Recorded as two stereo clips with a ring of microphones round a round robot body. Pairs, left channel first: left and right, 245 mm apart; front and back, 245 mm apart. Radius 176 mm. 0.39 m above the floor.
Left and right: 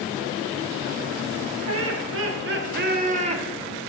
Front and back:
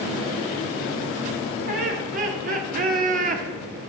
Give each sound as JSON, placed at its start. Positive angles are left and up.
{"t": 1.7, "sound": "laughter", "azimuth_deg": -115, "distance_m": 2.0}